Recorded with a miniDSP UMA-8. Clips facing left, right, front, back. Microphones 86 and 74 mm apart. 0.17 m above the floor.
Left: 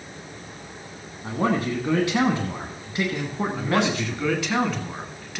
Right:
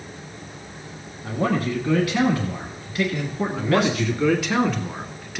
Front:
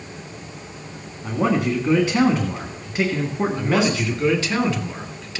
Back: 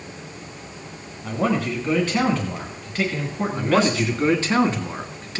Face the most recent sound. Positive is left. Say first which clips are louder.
# right 3 dB, back 3 dB
turn(degrees=180)